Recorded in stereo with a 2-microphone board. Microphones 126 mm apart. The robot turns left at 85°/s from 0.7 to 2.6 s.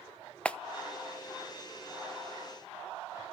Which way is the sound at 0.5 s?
10° left (ahead or behind).